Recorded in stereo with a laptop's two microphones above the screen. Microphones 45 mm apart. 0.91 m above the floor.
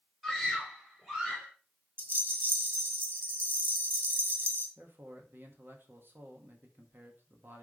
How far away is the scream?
About 3 m.